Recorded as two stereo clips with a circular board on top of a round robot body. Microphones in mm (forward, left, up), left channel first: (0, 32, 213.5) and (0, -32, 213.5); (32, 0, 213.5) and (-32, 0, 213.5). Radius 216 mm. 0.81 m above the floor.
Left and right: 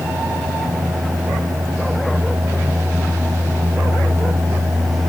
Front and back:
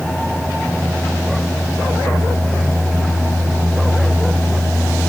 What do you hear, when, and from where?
Only background noise.